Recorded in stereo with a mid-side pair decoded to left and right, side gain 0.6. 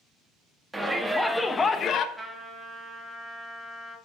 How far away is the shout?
About 2 m.